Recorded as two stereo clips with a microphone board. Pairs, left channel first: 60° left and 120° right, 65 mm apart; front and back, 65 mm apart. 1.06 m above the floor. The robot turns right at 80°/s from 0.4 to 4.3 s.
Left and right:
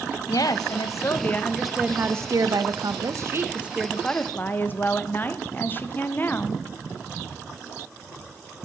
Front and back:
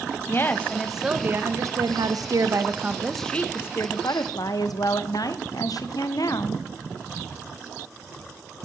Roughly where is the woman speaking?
Ahead left.